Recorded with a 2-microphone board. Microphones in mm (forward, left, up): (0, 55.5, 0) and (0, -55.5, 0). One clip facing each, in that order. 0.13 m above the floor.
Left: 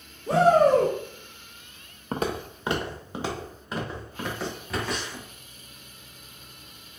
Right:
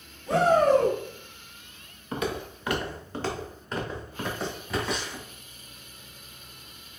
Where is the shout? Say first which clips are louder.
Left 2 dB; 35° left (ahead or behind), 1.6 m.